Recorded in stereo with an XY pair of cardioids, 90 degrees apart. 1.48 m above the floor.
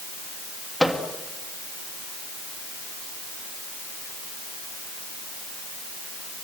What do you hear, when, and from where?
0.8 s a microwave: straight ahead, 2.5 m